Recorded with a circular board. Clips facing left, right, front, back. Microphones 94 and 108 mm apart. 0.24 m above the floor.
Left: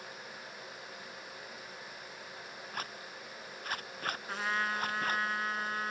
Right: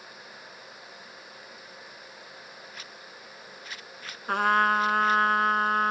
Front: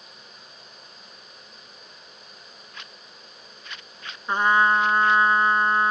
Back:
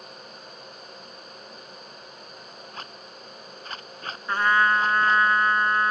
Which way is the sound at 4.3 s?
70° right.